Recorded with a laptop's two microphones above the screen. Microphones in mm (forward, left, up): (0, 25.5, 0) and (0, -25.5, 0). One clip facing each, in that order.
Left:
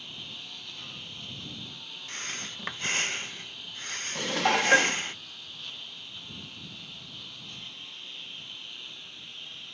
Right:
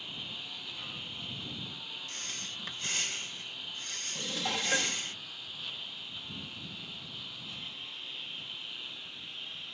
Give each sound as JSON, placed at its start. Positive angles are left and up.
{"t": 0.0, "sound": "a lawn mower", "side_deg": -5}
{"t": 2.1, "sound": "breathing", "side_deg": 45}
{"t": 4.2, "sound": "dishes clattering", "side_deg": 65}